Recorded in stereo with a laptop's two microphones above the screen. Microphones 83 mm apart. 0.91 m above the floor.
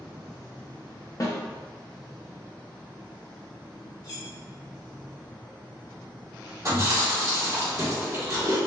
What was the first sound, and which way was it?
A snare drum, 45° left (ahead or behind).